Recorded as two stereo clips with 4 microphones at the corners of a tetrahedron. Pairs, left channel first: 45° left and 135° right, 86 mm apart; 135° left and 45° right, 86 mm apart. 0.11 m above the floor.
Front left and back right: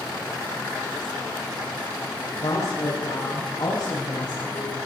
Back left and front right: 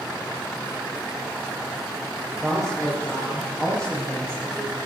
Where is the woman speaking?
50° left, 5 m; by 4.7 s 65° left, 8 m.